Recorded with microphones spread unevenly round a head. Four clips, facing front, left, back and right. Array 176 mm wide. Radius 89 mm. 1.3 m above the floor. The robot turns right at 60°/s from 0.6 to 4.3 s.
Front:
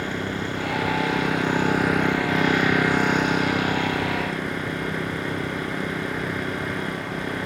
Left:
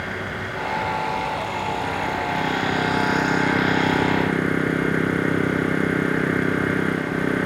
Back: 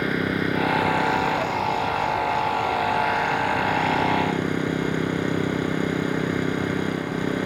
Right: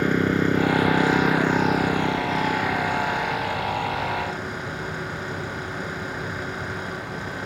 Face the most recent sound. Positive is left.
turn(degrees=115)